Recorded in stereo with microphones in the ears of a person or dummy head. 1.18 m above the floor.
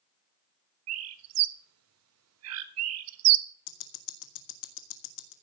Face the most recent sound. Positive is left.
turn(degrees=65)  # may be behind; listen again after turning